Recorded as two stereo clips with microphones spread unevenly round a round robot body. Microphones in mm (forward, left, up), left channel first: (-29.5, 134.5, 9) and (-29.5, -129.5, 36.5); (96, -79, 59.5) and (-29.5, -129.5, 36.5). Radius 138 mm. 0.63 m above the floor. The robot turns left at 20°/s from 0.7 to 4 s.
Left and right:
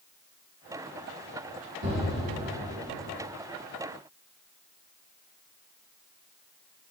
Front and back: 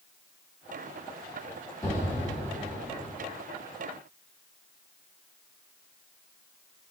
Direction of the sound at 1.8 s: 45° right.